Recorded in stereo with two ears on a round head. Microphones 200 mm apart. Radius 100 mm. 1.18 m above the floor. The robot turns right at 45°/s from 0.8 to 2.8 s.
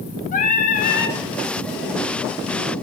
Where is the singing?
35° left (ahead or behind), 1.2 m; by 1.2 s 55° left (ahead or behind), 1.2 m.